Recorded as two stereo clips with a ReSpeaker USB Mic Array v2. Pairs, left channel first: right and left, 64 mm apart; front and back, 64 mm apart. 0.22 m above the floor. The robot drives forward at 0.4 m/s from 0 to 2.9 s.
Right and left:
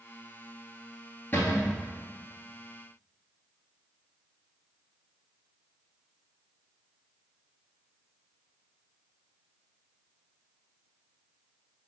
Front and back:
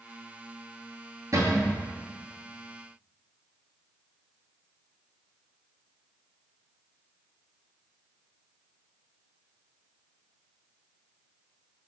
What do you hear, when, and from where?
1.3 s a cupboard door: 145° right, 1.1 m; by 1.8 s 150° right, 1.2 m